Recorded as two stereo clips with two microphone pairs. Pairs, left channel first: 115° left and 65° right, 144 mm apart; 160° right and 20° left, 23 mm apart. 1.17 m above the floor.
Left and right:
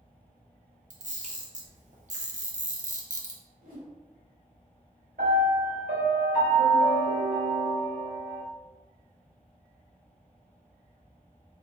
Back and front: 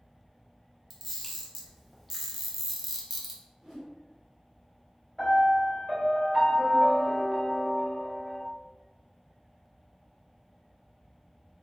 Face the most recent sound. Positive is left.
turn(degrees=-70)